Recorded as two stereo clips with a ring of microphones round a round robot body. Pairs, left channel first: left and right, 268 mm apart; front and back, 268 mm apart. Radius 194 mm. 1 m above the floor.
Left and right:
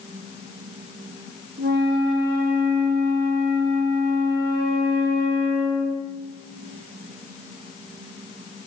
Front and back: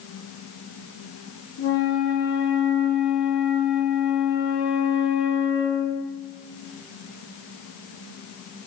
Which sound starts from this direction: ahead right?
A flute, at 1.6 s.